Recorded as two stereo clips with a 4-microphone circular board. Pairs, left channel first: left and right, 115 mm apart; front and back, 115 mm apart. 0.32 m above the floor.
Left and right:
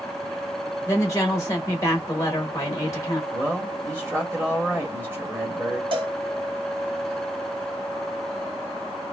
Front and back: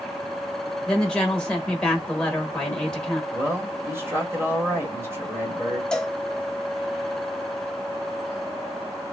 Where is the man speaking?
140° right, 1.5 m.